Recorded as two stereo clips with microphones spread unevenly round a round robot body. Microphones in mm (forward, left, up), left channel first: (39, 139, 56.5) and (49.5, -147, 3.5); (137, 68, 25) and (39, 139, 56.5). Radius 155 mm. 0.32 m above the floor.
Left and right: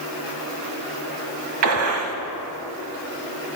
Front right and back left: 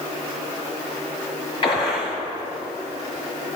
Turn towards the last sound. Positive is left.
turn(degrees=-75)